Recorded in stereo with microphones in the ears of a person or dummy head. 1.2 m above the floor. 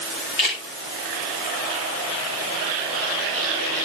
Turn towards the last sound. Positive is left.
turn(degrees=35)  # may be behind; listen again after turning